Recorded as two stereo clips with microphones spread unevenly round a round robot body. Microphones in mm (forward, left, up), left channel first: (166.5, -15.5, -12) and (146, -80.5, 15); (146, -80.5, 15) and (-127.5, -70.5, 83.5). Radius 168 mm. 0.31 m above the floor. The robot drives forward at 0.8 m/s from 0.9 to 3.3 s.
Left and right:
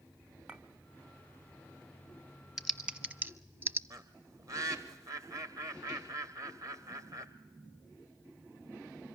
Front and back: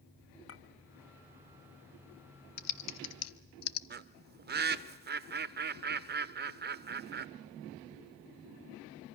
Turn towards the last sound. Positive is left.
turn(degrees=-140)